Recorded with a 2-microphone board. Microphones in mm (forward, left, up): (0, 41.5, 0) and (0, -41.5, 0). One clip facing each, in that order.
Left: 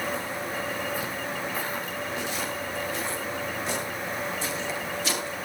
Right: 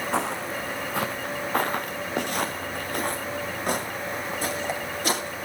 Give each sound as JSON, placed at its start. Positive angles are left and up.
{"t": 0.1, "sound": "footsteps", "side_deg": -80, "distance_m": 1.2}